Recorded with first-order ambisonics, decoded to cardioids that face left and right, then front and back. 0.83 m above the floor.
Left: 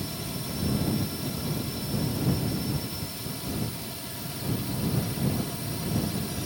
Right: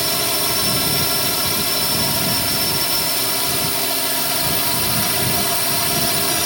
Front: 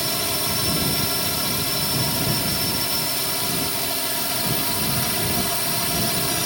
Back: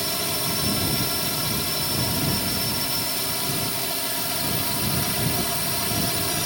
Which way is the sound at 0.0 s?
85° right.